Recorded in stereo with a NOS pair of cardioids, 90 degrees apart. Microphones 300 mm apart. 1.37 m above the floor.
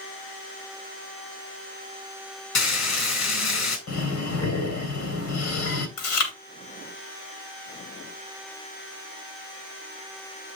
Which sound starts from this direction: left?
Frying, at 2.5 s.